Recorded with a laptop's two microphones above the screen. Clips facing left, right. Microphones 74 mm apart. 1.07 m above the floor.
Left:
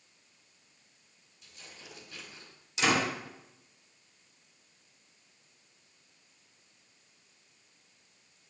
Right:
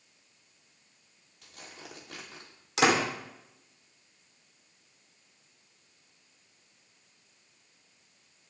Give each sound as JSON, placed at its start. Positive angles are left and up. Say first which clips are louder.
{"t": 1.4, "sound": "tearing paper", "louder": "right 4 dB", "side_deg": -75, "distance_m": 2.5}
{"t": 2.8, "sound": "a door slam", "louder": "right 4 dB", "side_deg": -85, "distance_m": 3.0}